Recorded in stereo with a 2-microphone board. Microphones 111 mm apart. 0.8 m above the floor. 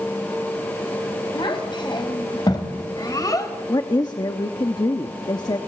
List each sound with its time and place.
1.4 s a child speaking: 45° left (ahead or behind), 3 m; by 3.5 s 30° left (ahead or behind), 2.5 m
3.7 s a woman speaking: 40° left (ahead or behind), 1.0 m